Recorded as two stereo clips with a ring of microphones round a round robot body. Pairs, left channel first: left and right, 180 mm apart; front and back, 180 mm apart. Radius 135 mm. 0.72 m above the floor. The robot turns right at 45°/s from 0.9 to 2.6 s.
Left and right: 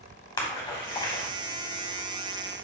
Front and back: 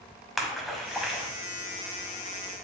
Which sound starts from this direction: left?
A splash, at 0.4 s.